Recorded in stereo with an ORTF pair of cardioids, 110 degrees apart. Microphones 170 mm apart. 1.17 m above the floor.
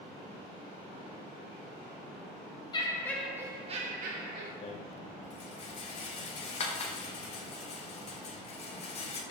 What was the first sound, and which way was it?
Laughter, 25° left.